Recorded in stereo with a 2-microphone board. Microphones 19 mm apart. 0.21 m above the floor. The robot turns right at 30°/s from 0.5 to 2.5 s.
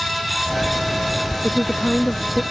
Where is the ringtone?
No ringtone in this recording.